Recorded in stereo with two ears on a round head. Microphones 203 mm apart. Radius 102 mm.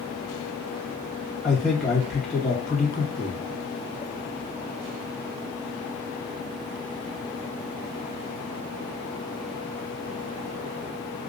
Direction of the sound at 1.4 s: 5° left (ahead or behind).